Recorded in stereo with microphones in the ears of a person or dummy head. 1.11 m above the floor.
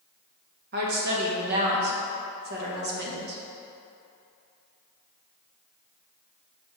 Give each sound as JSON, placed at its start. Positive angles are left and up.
{"t": 0.7, "sound": "a woman speaking", "side_deg": -55, "distance_m": 1.2}